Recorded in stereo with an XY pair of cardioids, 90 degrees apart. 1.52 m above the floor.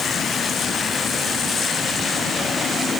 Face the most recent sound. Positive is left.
No sound to turn to.